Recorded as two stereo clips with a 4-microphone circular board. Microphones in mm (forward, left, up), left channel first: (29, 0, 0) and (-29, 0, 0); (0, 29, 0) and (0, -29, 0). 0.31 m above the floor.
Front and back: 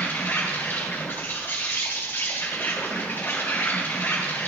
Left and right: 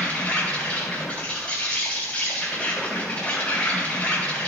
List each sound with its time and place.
0.0 s an insect: 35° left, 3 m